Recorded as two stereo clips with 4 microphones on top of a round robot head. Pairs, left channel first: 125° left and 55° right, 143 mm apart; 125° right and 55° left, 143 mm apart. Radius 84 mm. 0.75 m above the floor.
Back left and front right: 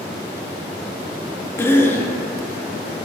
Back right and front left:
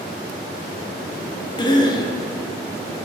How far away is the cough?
About 0.6 m.